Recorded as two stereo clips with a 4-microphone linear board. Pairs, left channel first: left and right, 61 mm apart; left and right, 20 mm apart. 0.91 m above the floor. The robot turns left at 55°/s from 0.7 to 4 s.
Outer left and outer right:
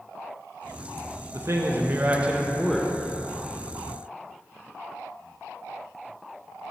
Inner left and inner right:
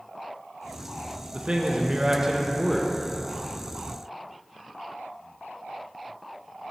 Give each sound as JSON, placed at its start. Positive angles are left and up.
{"t": 1.3, "sound": "a man speaking", "azimuth_deg": -105, "distance_m": 0.5}